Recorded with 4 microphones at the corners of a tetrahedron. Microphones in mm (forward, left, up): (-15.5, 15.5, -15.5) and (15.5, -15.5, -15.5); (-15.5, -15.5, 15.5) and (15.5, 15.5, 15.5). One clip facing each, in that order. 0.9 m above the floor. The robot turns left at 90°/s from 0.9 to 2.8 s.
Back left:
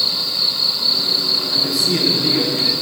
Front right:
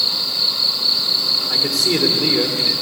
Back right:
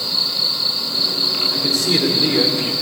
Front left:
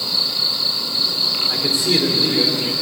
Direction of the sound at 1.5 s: 5° right.